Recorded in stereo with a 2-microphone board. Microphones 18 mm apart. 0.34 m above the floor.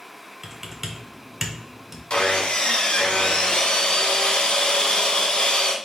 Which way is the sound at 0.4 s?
5° right (ahead or behind).